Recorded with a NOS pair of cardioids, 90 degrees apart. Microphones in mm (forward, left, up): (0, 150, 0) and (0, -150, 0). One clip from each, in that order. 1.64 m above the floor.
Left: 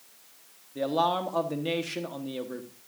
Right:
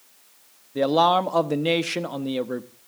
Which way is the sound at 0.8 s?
45° right.